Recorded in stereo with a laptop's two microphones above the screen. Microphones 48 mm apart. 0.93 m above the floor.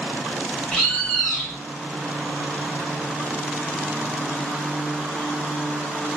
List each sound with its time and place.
0.7 s a bird: 5° left (ahead or behind), 1.8 m